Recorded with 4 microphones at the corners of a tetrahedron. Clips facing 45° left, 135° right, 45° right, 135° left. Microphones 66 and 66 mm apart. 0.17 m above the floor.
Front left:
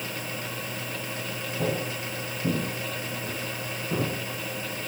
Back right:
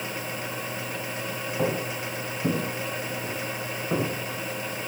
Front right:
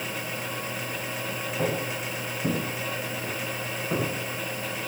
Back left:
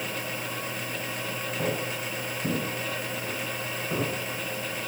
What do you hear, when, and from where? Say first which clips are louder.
1.6 s footsteps: back right 2 dB, front right 2 dB; 125° right, 9.5 m